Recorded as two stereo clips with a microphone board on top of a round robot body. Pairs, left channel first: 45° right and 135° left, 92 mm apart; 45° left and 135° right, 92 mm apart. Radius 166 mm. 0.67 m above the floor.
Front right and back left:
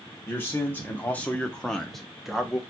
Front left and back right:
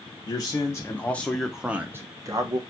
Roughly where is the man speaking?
Ahead.